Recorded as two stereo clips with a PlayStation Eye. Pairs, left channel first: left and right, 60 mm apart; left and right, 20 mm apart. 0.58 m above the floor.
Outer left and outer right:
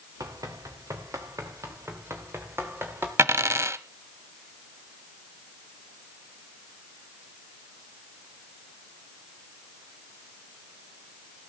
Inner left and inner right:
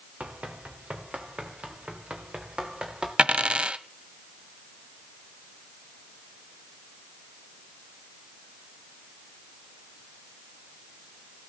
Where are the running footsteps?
80° right, 3 m; by 3.1 s 40° right (ahead or behind), 4 m.